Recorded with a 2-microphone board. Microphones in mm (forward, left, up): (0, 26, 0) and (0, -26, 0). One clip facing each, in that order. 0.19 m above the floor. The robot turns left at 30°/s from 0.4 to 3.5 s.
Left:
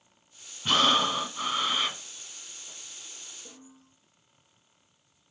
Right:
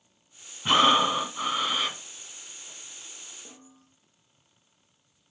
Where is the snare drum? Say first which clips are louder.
Left 1 dB; 45° right (ahead or behind), 5.5 m.